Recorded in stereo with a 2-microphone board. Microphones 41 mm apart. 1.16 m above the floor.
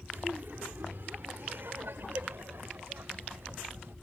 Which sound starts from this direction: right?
Laughter, at 0.1 s.